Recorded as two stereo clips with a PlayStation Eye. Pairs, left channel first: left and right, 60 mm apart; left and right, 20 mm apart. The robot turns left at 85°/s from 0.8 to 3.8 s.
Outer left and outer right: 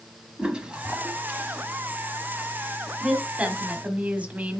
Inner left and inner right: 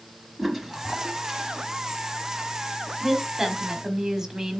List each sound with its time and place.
0.4 s a toilet flushing: 25° right, 1.1 m; by 1.6 s 100° right, 1.1 m
3.0 s a woman speaking: 5° right (ahead or behind), 1.3 m; by 4.6 s 25° right (ahead or behind), 1.3 m